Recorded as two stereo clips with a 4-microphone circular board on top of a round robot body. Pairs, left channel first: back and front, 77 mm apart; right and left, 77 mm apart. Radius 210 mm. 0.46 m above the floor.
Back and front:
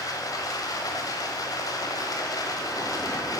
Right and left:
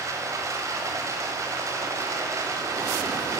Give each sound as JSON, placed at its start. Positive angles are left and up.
{"t": 0.0, "sound": "running water", "azimuth_deg": 140, "distance_m": 1.2}